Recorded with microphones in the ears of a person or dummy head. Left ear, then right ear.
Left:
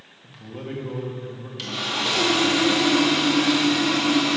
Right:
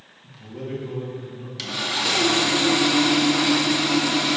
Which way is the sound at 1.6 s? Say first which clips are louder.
Right 1 dB; 15° right (ahead or behind).